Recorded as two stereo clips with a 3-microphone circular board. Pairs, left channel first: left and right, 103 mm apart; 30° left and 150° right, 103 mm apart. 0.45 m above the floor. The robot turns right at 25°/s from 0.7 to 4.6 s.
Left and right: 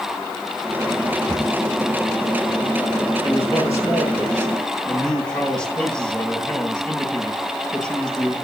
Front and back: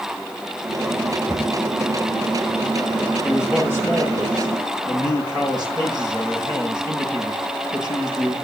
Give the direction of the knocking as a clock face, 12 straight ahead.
7 o'clock.